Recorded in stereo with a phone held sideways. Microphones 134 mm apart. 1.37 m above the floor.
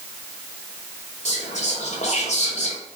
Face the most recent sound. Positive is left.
turn(degrees=60)  # may be behind; listen again after turning